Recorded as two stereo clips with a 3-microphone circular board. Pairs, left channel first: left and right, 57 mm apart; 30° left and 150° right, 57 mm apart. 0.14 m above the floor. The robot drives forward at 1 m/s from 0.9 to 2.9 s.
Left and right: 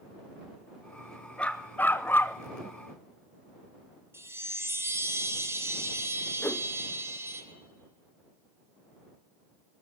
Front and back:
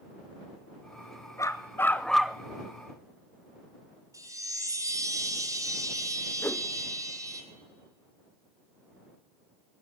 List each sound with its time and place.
1.4 s a dog barking: 25° left, 0.8 m; by 2.4 s 140° left, 0.6 m
4.1 s a chime: 135° right, 1.3 m
6.4 s a whoosh: 55° left, 0.6 m